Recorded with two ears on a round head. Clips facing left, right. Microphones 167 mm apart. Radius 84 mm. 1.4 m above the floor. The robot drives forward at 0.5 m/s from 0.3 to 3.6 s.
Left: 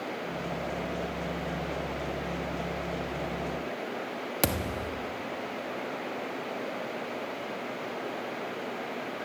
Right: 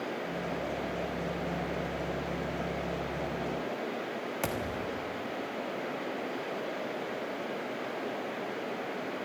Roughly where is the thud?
Left.